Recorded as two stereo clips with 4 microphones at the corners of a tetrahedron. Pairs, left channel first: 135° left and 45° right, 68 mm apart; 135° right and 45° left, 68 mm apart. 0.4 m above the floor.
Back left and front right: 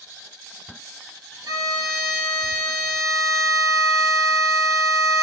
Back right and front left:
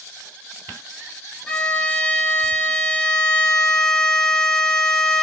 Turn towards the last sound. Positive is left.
turn(degrees=-60)